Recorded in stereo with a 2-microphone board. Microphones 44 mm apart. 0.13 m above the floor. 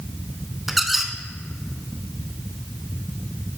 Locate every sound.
0.7 s a squeak: 5° right (ahead or behind), 0.6 m